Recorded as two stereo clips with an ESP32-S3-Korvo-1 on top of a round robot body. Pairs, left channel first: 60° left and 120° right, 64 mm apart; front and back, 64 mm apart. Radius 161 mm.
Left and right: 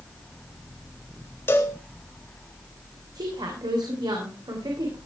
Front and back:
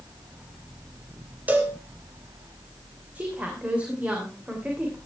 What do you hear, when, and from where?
1.5 s a cowbell: 115° left, 2.5 m
3.1 s a woman speaking: 110° right, 3 m